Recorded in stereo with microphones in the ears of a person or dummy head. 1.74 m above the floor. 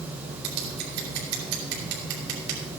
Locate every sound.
0.4 s scissors: 60° right (ahead or behind), 4 m